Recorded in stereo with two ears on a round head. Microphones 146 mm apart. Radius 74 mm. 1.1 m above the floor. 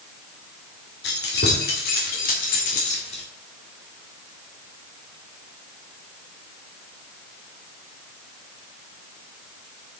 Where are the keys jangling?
65° left (ahead or behind), 3 m; by 3.2 s 40° left (ahead or behind), 2 m.